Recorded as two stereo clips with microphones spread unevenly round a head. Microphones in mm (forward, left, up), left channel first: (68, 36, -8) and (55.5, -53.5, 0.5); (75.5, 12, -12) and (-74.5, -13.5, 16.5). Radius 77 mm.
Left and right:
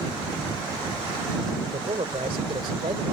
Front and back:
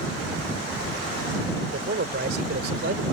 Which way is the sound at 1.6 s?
145° right.